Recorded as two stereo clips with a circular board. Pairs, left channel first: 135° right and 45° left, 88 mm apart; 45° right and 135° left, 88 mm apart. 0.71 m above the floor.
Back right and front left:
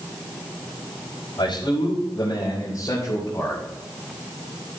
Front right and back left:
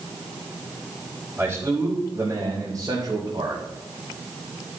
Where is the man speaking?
160° right, 3.5 m; by 3.6 s 160° left, 3.5 m.